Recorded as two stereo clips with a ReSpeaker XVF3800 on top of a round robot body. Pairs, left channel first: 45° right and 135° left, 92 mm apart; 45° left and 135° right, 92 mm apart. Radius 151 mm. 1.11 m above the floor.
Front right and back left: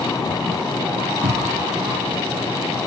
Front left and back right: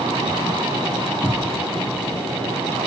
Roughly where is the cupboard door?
Behind left.